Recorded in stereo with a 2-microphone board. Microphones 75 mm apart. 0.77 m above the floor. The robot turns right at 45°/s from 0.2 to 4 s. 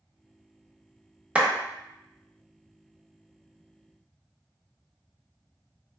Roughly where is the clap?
Centre.